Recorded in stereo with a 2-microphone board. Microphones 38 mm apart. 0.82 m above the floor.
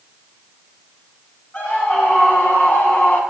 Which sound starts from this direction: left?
A scream, at 1.5 s.